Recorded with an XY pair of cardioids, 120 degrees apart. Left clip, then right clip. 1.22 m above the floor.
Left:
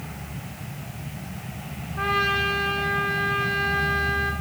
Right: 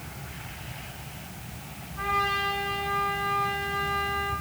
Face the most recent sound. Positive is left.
turn(degrees=55)